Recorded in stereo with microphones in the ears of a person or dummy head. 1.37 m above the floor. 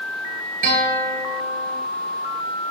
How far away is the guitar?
About 3 m.